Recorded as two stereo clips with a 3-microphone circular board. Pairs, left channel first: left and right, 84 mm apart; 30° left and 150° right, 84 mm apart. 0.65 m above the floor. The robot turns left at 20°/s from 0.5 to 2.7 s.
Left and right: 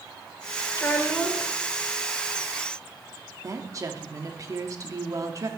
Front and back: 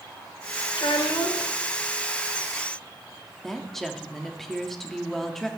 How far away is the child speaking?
About 1.3 m.